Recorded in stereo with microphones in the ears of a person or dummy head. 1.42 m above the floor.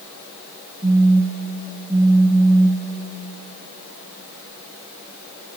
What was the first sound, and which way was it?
A phone buzzing, 25° right (ahead or behind).